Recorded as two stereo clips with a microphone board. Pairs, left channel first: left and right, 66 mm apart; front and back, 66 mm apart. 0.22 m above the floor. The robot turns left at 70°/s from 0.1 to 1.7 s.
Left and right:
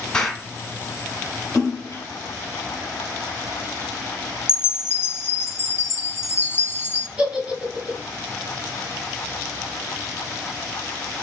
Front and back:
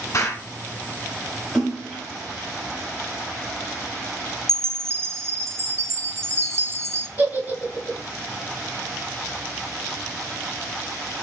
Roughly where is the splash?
Left.